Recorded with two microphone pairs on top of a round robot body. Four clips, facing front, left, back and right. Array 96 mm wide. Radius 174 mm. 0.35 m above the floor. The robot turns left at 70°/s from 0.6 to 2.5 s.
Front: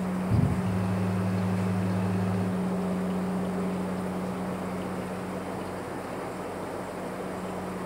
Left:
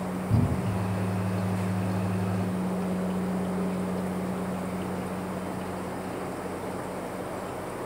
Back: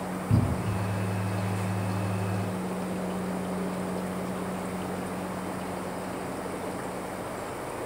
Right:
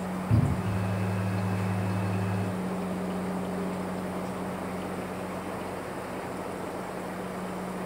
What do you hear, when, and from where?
0.3 s a cupboard door: 125° right, 2.5 m; by 0.8 s 140° right, 2.5 m